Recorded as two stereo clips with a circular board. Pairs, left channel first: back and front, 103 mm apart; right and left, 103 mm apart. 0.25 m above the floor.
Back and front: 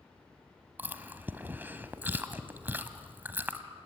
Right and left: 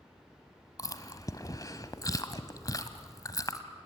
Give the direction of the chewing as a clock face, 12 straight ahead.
2 o'clock.